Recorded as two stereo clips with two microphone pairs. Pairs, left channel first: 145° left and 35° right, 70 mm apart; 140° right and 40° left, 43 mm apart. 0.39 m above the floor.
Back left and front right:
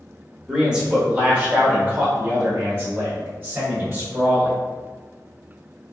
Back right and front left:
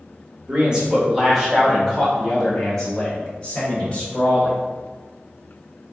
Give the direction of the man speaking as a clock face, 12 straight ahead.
11 o'clock.